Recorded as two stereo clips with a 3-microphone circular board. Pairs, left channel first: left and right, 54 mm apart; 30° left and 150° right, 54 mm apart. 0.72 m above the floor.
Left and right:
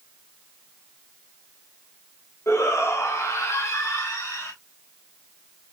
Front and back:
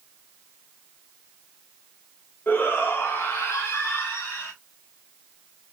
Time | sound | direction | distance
2.5 | a shout | 75° left | 1.2 m